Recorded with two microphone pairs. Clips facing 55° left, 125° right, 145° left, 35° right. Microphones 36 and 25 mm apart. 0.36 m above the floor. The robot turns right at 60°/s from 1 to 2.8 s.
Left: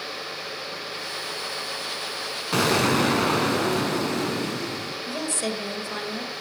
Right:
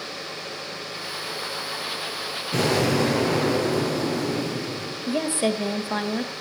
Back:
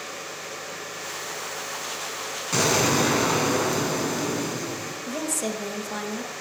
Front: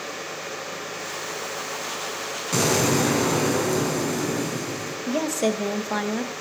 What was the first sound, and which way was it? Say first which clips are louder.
An explosion: left 1 dB, even; 65° left.